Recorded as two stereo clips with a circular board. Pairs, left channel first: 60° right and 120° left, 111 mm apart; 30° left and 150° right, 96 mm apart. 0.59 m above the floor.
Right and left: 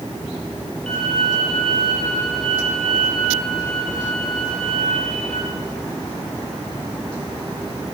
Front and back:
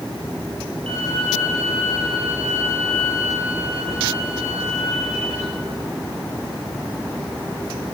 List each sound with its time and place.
0.9 s a violin: 140° right, 7 m